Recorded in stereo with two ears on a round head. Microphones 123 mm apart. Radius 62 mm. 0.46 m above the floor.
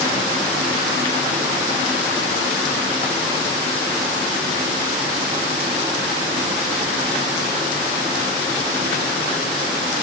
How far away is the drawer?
No drawer in this recording.